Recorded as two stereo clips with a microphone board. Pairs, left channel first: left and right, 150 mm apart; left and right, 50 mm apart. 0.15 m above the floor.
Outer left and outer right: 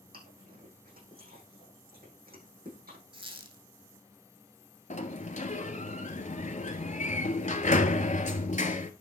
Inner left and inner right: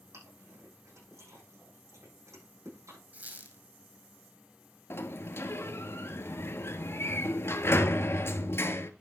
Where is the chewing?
80° right, 7.5 m.